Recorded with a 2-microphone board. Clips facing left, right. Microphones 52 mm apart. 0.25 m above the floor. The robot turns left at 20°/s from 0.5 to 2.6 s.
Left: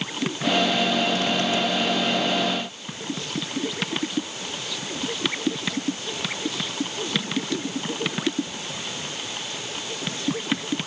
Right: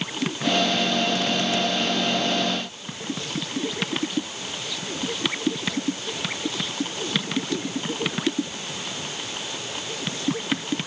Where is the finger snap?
No finger snap in this recording.